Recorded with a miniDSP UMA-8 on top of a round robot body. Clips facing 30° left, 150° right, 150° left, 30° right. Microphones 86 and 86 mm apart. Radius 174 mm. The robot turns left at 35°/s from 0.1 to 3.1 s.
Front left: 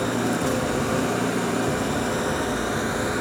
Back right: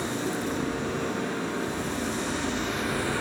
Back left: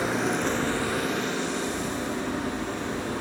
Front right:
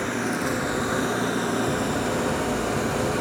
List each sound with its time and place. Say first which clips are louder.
0.0 s an engine running: front left 6 dB, even; 65° left, 3.5 m; by 3.2 s 40° right, 3.5 m